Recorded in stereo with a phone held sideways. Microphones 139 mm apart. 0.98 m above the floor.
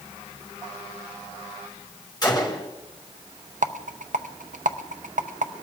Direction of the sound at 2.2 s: 30° left (ahead or behind).